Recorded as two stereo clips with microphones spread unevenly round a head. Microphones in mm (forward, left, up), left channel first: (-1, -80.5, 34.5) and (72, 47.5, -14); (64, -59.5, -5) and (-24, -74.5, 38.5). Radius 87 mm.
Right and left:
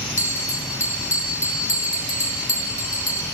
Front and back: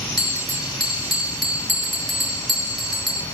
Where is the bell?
80° right, 3 m.